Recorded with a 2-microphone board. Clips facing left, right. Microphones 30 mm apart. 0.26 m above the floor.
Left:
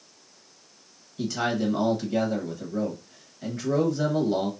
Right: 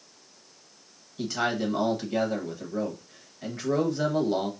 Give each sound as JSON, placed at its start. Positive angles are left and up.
{"t": 1.2, "sound": "a man speaking", "side_deg": -10, "distance_m": 1.1}